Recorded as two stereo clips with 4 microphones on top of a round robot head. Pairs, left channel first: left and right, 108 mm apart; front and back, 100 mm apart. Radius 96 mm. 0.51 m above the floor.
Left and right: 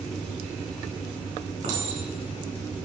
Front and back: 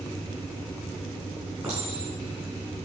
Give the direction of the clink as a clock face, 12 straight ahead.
3 o'clock.